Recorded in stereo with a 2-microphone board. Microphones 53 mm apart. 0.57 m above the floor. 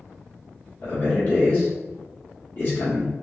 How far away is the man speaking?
About 1.3 m.